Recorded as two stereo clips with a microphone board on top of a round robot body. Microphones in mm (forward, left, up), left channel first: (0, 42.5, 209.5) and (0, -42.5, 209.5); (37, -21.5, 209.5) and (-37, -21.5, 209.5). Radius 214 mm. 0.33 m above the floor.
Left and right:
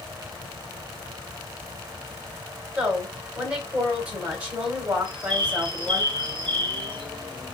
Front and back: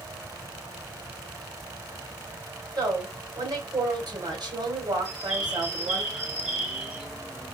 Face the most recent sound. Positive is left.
turn(degrees=-105)